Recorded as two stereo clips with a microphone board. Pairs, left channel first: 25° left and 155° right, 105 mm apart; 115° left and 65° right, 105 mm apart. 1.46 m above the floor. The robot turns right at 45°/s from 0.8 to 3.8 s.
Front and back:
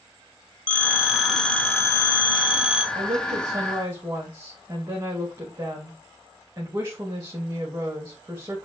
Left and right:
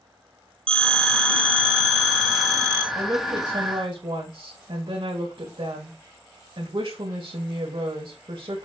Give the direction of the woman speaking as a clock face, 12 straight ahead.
4 o'clock.